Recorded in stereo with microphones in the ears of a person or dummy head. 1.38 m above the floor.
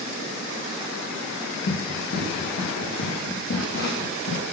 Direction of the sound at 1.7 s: 45° left (ahead or behind).